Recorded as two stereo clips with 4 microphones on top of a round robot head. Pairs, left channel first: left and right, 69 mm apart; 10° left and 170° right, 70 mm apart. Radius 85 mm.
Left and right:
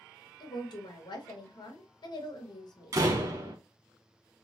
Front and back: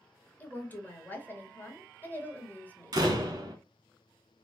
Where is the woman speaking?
75° left, 1.4 m.